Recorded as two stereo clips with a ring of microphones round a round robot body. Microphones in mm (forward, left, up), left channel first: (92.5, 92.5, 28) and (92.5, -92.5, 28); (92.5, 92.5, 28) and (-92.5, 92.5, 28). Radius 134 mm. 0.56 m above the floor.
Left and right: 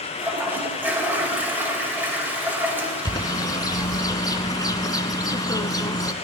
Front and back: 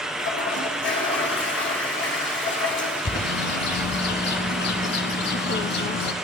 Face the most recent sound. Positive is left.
turn(degrees=20)